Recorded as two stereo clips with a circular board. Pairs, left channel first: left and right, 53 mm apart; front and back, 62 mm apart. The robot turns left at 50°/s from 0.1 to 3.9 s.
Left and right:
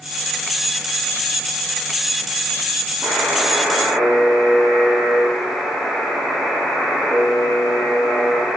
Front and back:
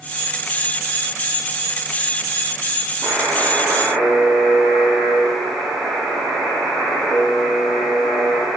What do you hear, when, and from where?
3.0 s a buzzer: 140° right, 7.5 m; by 8.6 s straight behind, 7.5 m